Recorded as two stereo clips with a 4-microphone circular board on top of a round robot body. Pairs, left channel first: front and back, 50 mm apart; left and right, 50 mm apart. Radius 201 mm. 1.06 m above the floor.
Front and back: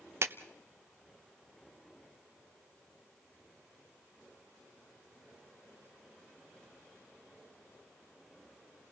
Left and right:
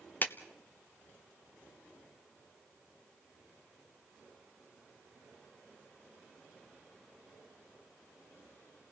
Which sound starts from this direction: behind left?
A clap, at 0.2 s.